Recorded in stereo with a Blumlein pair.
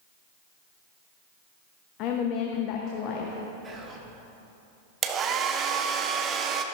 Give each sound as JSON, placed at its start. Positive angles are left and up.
{"t": 2.0, "sound": "a woman speaking", "azimuth_deg": 40, "distance_m": 0.9}
{"t": 3.6, "sound": "whispering", "azimuth_deg": -20, "distance_m": 1.8}
{"t": 5.0, "sound": "a hair dryer", "azimuth_deg": -25, "distance_m": 0.7}